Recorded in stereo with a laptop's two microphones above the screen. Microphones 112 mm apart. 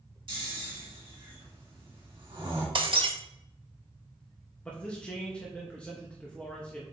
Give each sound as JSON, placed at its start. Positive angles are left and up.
{"t": 0.3, "sound": "snoring", "side_deg": -45, "distance_m": 2.0}
{"t": 2.8, "sound": "breaking glass", "side_deg": -50, "distance_m": 0.9}
{"t": 4.7, "sound": "a man speaking", "side_deg": 10, "distance_m": 0.9}